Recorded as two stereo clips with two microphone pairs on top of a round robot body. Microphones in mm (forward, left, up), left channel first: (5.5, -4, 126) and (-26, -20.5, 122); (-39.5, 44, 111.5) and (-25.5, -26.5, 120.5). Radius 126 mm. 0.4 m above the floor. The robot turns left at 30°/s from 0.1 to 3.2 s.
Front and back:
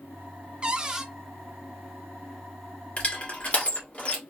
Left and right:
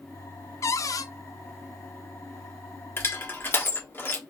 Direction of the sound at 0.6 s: 145° left.